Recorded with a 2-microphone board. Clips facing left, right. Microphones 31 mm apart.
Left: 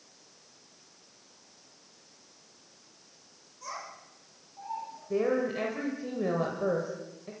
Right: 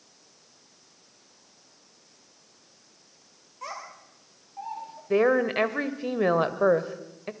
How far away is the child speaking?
About 6.5 m.